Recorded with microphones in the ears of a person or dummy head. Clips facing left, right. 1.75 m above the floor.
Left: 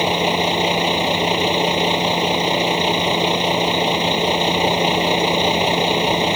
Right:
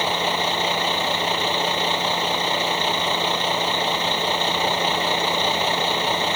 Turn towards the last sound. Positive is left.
turn(degrees=15)  # may be behind; listen again after turning